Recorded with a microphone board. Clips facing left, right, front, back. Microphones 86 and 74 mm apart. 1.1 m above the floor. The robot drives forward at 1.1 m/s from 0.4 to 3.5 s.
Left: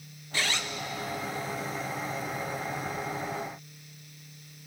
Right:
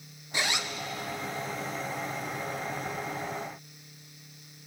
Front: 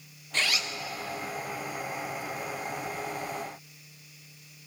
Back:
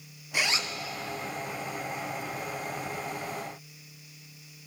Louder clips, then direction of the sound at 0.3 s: Even, back 1 dB; 125° right.